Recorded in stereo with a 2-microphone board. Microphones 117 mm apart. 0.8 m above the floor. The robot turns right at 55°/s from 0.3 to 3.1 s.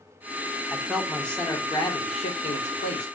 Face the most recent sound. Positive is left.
turn(degrees=110)